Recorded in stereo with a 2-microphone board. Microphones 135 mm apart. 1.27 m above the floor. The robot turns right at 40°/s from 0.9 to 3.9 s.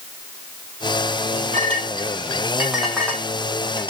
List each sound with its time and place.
1.5 s a clink: 50° right (ahead or behind), 2.5 m; by 3.9 s 45° left (ahead or behind), 2.5 m